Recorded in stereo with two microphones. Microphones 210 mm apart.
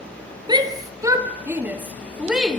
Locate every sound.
0.5 s a shout: 20° right (ahead or behind), 3.5 m; by 2.6 s centre (ahead or behind), 4 m